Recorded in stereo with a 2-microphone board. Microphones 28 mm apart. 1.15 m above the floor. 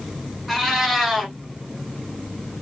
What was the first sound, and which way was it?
A cat meowing, centre (ahead or behind).